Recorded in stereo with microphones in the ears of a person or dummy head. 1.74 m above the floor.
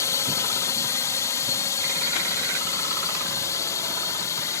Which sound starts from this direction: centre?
A drone, at 0.0 s.